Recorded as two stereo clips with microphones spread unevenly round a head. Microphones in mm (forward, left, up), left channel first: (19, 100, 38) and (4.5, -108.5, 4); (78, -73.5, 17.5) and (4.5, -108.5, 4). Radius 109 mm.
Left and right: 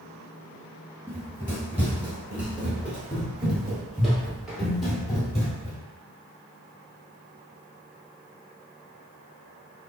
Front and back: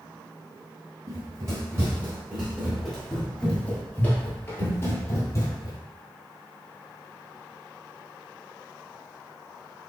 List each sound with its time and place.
1.1 s running footsteps: 175° left, 1.5 m; by 5.8 s 5° left, 2 m